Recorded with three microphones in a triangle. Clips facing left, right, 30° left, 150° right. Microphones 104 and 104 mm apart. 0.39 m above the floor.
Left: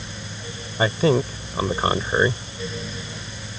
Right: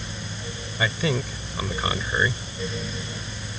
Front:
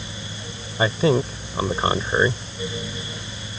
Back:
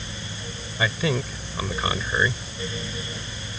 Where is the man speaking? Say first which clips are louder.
Left 7 dB, front 6 dB; 65° left.